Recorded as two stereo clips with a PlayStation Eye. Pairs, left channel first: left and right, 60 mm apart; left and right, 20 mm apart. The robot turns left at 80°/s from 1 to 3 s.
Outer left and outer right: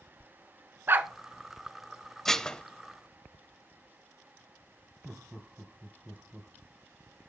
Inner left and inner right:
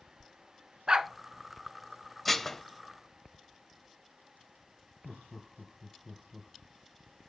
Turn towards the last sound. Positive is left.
turn(degrees=-5)  # may be behind; listen again after turning